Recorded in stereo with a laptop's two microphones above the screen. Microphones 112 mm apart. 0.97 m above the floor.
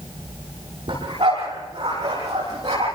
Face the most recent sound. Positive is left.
turn(degrees=-40)  # may be behind; listen again after turning